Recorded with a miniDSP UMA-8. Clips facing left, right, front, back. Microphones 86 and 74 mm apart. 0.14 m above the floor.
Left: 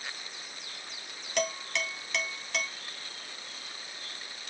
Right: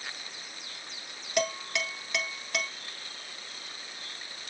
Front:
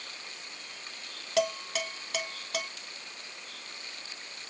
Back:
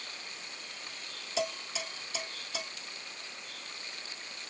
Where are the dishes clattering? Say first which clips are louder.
Right 2 dB, front 6 dB; 5° right, 1.8 m.